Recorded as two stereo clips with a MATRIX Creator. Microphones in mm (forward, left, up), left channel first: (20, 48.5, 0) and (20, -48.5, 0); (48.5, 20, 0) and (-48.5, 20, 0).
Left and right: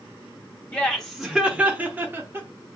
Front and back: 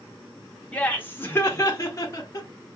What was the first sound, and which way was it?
Laughter, 40° left.